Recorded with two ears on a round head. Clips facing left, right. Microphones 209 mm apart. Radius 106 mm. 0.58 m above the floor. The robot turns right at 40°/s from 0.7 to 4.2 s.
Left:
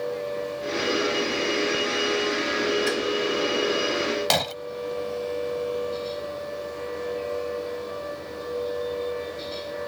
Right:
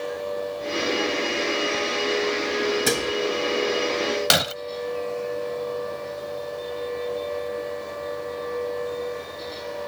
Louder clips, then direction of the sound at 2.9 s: Right 1 dB; 60° right (ahead or behind).